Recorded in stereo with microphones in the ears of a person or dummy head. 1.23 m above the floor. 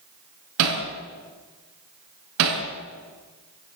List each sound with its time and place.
0.6 s hammering: 75° right (ahead or behind), 4.5 m